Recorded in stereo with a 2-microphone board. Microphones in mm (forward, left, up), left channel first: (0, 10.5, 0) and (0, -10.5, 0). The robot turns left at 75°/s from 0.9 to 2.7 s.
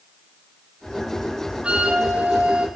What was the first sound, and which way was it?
A flute, 50° right.